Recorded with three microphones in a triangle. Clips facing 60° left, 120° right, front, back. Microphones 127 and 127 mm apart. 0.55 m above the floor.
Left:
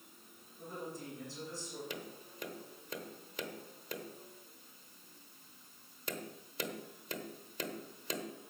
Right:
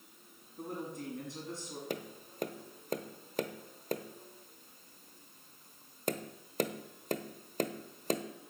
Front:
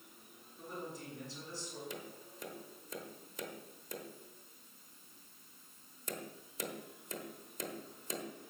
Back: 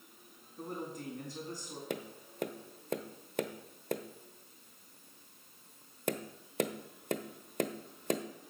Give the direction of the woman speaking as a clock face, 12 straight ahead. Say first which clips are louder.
Right 4 dB, back 4 dB; 5 o'clock.